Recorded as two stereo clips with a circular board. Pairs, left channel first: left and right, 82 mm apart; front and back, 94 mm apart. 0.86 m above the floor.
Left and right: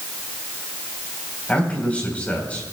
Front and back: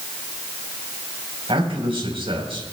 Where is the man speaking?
165° left, 4 m.